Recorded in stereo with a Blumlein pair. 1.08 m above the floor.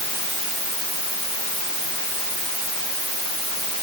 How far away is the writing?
No writing in this recording.